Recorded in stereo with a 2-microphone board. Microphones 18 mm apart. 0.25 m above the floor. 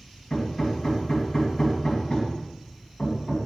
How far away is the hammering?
About 2 m.